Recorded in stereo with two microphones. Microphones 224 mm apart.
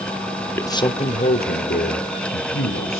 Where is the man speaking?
10° left (ahead or behind), 1.3 m; by 3.0 s 70° left (ahead or behind), 3 m.